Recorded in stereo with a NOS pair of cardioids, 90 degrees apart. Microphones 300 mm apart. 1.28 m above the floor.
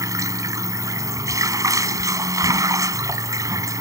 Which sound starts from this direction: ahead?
Running water, at 0.0 s.